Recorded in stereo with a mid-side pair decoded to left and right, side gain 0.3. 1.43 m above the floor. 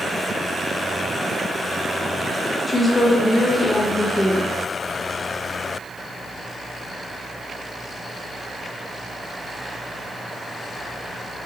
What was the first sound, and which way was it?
A woman speaking, 35° left.